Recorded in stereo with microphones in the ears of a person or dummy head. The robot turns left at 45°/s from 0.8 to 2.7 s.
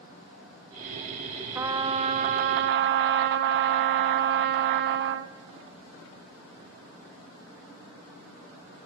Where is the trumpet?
15° right, 0.6 m; by 5.3 s 70° right, 0.6 m.